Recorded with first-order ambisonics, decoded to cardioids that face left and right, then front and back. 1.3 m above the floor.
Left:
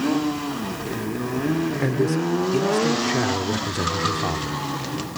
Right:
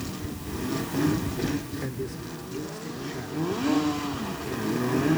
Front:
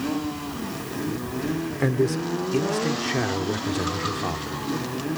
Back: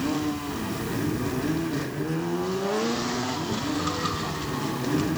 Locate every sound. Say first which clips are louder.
1.8 s a man speaking: left 12 dB, front 6 dB; 35° left; by 4.6 s 70° left